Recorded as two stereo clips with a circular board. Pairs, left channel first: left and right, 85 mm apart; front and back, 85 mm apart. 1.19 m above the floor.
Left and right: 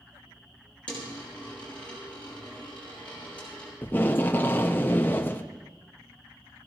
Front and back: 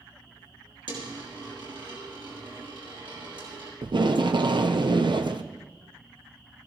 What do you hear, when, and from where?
0.9 s a dropped coin: 165° left, 7 m
3.8 s tape being pulled: 155° left, 0.9 m